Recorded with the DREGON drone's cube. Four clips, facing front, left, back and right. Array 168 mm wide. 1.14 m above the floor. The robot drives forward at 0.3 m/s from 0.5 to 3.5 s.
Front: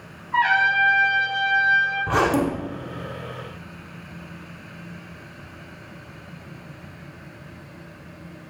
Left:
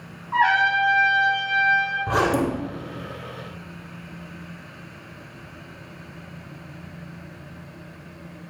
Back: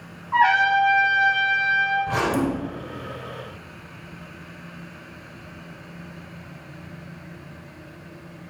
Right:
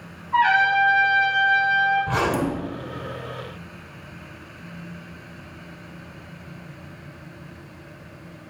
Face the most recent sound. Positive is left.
turn(degrees=90)